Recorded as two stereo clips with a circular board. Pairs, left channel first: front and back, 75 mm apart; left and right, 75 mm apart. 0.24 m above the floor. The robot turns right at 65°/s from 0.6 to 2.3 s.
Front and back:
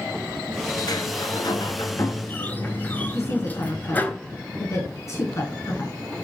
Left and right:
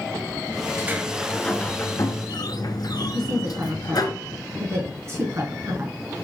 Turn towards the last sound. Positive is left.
turn(degrees=-45)